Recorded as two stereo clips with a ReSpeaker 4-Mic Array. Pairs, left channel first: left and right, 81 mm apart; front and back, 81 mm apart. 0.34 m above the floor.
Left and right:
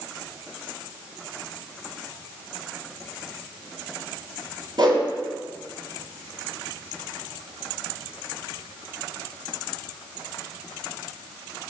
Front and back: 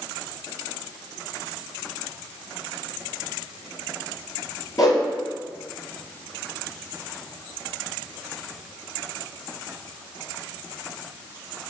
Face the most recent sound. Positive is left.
turn(degrees=-50)